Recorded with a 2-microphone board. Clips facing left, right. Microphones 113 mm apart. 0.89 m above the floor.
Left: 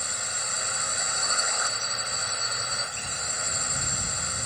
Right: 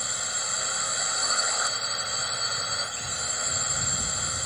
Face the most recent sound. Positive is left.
turn(degrees=0)  # may be behind; listen again after turning